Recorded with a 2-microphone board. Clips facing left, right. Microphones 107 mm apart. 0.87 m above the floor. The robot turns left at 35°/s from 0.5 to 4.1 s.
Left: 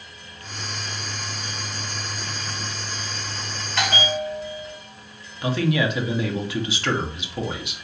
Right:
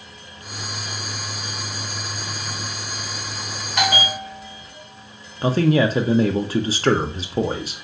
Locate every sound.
3.8 s a bell: 15° right (ahead or behind), 1.5 m; by 4.8 s 5° right (ahead or behind), 1.5 m
5.4 s a man speaking: 40° right (ahead or behind), 0.5 m